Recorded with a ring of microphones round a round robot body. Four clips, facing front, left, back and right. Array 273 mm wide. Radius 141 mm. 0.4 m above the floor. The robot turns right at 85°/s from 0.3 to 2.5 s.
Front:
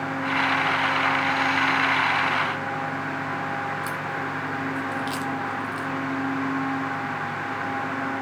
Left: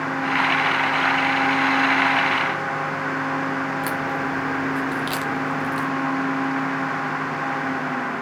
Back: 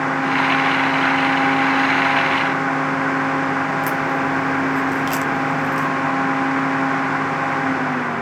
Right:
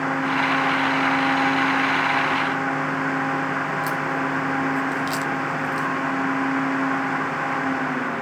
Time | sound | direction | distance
3.8 | a crack | 150° left | 0.6 m